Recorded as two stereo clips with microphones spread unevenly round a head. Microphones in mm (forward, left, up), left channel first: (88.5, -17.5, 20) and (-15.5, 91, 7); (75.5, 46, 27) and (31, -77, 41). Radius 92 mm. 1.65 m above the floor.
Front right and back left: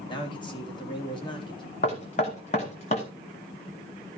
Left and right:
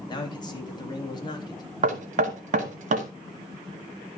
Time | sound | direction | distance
0.1 | a man speaking | 15° left | 3.5 m
1.8 | knocking | 95° right | 1.9 m